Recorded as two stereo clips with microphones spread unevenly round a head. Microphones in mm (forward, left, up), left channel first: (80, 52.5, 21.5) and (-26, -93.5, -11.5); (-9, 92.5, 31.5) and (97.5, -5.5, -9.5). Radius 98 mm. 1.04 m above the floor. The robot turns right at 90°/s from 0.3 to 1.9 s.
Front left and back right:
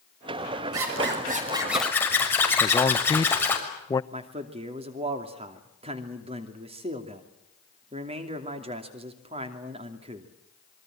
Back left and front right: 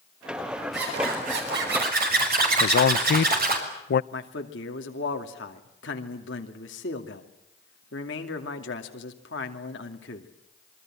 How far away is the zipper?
About 6 m.